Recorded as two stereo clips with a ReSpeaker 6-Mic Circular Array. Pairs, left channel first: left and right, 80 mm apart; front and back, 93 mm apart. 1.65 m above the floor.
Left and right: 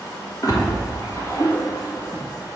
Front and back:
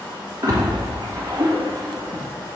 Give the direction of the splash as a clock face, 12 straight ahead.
8 o'clock.